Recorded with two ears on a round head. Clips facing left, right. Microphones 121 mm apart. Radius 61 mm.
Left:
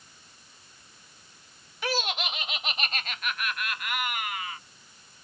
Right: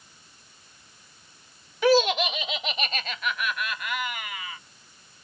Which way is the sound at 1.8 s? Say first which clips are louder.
Right 11 dB; 70° right (ahead or behind).